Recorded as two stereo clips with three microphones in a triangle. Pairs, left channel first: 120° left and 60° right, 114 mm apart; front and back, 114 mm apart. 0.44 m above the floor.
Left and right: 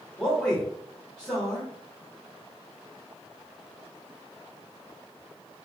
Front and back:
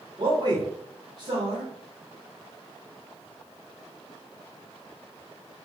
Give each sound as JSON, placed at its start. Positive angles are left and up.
{"t": 0.2, "sound": "a man speaking", "azimuth_deg": -160, "distance_m": 1.1}